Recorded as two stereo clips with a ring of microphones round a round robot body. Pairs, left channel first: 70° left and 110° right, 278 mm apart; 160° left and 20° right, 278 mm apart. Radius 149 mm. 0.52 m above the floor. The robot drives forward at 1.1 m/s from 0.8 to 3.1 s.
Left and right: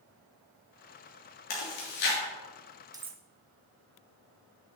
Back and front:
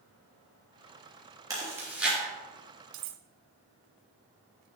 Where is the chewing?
55° left, 3.5 m; by 2.2 s 65° left, 3.5 m.